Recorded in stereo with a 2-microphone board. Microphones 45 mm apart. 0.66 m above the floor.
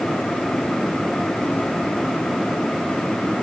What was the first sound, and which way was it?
Only background noise.